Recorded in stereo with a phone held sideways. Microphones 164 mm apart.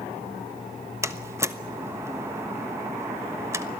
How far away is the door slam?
About 1.1 m.